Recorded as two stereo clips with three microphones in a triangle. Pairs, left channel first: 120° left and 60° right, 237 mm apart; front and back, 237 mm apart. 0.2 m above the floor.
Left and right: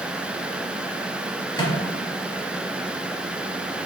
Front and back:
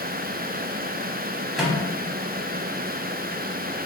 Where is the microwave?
95° left, 0.8 m.